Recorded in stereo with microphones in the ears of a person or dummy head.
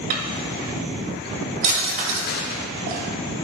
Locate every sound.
0.1 s a drawer: 45° right (ahead or behind), 1.5 m
2.3 s a gunshot: 60° left (ahead or behind), 0.6 m